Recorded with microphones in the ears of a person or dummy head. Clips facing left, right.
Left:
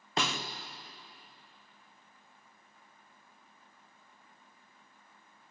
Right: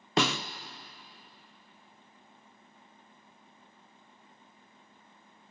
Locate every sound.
0.2 s a snare drum: 55° right (ahead or behind), 0.8 m